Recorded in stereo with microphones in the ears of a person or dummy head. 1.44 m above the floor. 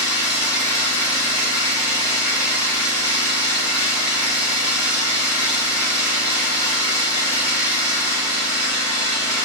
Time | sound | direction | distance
0.0 | an engine running | 20° left (ahead or behind) | 1.4 m